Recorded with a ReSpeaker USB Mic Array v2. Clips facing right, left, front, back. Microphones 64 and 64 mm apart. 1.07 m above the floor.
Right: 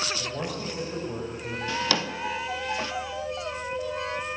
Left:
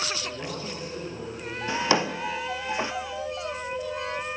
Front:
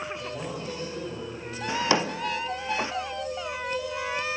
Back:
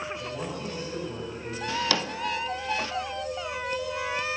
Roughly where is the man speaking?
Right.